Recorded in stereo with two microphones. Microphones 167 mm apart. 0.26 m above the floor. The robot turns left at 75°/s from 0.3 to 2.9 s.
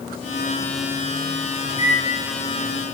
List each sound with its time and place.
1.7 s a microwave: 25° right (ahead or behind), 1.5 m; by 2.0 s 45° right (ahead or behind), 1.5 m